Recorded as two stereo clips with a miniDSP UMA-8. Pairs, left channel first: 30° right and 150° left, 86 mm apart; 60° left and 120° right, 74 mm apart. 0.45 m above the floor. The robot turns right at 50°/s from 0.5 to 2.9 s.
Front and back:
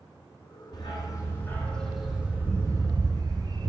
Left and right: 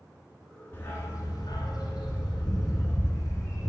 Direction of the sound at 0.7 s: Straight ahead.